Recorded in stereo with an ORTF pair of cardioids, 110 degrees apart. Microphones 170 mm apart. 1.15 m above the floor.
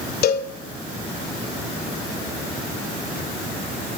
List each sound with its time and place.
0.2 s a cowbell: 70° left, 2.5 m